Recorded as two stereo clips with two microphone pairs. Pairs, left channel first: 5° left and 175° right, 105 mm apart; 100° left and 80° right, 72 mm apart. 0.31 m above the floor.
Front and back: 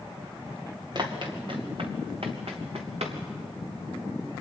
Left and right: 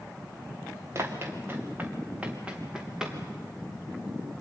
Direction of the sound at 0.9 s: 130° right.